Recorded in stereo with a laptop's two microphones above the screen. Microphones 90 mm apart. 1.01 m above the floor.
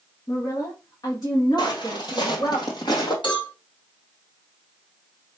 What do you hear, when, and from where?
0.3 s a woman speaking: 40° left (ahead or behind), 1.2 m; by 2.6 s 60° left (ahead or behind), 2.5 m
1.6 s footsteps: 55° left (ahead or behind), 1.6 m
3.2 s a cowbell: 70° left (ahead or behind), 3 m